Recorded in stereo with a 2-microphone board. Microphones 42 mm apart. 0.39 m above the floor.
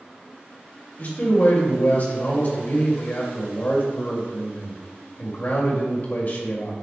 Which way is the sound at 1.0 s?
45° left (ahead or behind).